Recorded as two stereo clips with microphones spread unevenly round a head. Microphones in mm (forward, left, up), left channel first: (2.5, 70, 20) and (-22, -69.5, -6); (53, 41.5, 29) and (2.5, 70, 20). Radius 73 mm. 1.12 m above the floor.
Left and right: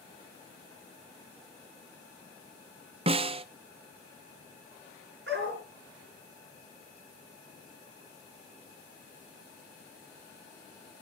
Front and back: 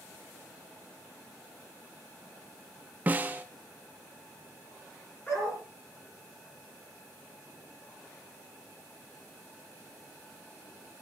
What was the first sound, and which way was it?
A snare drum, 145° right.